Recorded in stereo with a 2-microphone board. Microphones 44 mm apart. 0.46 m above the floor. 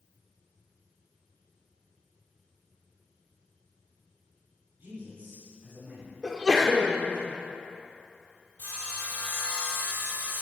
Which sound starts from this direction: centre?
A sneeze, at 6.2 s.